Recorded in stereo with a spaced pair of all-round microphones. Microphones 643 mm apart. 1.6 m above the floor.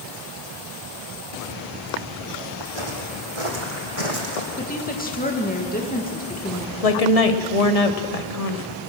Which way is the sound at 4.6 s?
15° left (ahead or behind).